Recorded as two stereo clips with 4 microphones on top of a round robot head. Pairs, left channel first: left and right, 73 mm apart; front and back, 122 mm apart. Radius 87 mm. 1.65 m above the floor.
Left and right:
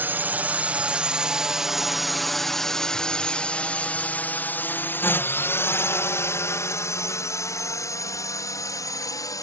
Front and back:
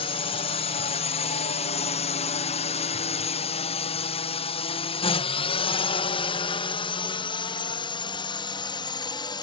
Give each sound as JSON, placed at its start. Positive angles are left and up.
{"t": 0.0, "sound": "a drone", "azimuth_deg": -30}